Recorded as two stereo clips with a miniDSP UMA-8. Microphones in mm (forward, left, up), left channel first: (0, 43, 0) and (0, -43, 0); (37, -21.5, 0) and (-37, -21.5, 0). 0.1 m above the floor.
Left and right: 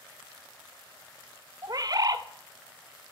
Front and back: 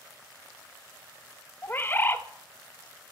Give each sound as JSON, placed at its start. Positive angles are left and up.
{"t": 1.6, "sound": "a bird", "azimuth_deg": -55, "distance_m": 0.5}